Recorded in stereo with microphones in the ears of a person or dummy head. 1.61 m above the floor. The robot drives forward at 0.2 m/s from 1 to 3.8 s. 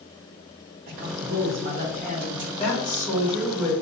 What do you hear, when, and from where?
0.9 s a man speaking: 50° right (ahead or behind), 1.3 m; by 2.5 s 40° right (ahead or behind), 1.5 m
2.6 s a woman speaking: 20° left (ahead or behind), 2 m; by 3.7 s 15° left (ahead or behind), 2.5 m